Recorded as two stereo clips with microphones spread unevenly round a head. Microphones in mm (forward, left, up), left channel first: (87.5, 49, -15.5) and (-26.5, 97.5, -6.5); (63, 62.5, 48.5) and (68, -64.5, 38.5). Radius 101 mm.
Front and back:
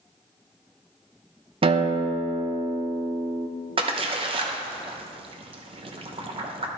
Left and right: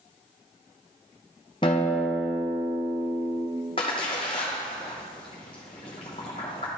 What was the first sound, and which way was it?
A guitar, 145° left.